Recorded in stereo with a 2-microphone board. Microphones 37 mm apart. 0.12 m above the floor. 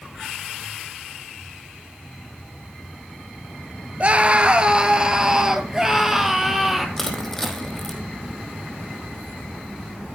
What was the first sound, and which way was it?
A scream, 35° right (ahead or behind).